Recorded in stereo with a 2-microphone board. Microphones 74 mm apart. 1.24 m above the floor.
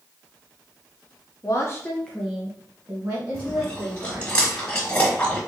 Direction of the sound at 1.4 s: 50° left (ahead or behind).